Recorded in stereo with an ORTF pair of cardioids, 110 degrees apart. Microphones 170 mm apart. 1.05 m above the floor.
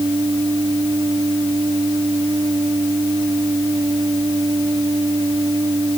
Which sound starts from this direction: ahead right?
A machine running, at 0.0 s.